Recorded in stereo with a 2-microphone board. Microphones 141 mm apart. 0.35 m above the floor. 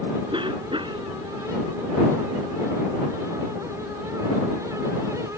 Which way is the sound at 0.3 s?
35° right (ahead or behind).